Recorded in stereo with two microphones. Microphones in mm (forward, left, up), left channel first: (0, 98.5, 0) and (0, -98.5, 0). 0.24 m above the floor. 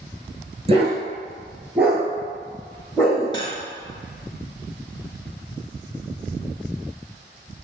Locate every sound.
0.7 s a dog barking: 30° right (ahead or behind), 1.3 m; by 3.2 s 15° left (ahead or behind), 2 m
3.3 s cutlery clinking: 25° left (ahead or behind), 0.9 m